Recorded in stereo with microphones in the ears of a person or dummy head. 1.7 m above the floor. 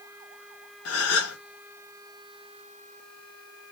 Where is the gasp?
65° left (ahead or behind), 0.8 m.